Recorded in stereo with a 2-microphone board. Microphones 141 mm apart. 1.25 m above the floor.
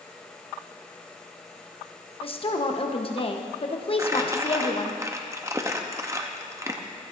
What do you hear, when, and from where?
2.2 s a woman speaking: 40° left (ahead or behind), 1.0 m
4.0 s crumpling: 20° right (ahead or behind), 0.8 m